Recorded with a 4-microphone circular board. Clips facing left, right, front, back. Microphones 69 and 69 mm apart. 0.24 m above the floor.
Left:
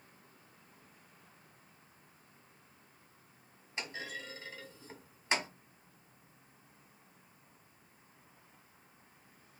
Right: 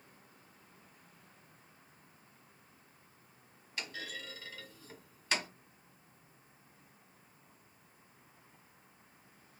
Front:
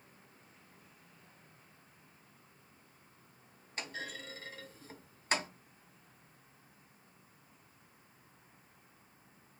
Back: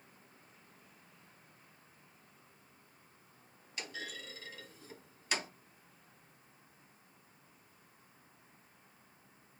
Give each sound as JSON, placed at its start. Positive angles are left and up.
{"t": 3.8, "sound": "a clunk", "azimuth_deg": 35, "distance_m": 1.9}